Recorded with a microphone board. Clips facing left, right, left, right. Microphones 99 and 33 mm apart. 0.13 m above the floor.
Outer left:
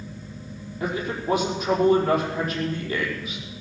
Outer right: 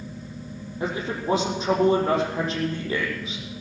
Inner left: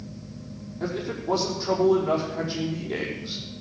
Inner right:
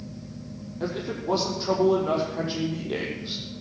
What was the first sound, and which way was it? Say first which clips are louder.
A man speaking: even, even; 30° right (ahead or behind).